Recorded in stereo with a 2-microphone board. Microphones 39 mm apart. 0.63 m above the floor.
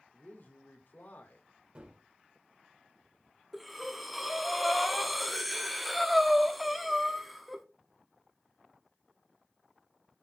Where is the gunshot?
30° right (ahead or behind), 2 m.